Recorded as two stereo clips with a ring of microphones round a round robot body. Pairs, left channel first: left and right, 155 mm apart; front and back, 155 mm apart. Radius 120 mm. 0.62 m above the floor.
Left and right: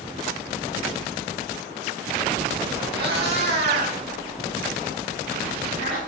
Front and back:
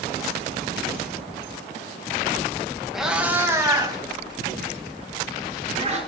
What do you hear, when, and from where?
2.9 s a cat meowing: 90° right, 2.5 m; by 6.0 s 140° right, 5 m